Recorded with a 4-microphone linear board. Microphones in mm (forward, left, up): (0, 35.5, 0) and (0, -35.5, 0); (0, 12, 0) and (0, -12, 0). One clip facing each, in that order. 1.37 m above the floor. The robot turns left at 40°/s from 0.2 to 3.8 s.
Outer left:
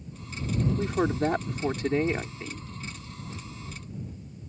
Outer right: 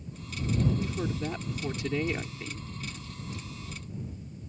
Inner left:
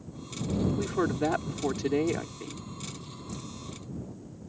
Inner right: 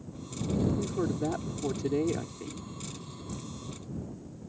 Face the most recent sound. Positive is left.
turn(degrees=-40)